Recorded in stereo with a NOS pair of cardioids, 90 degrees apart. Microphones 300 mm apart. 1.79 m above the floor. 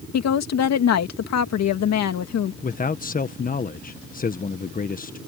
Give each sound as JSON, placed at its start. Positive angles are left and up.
{"t": 0.1, "sound": "a woman speaking", "azimuth_deg": 65}
{"t": 2.6, "sound": "a man speaking", "azimuth_deg": 30}